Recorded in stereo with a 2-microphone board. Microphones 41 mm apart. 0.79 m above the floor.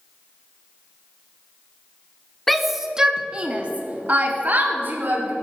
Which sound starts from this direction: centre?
A shout, at 2.5 s.